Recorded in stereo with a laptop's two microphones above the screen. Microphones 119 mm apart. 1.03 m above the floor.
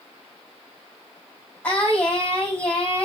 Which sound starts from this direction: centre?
Singing, at 1.6 s.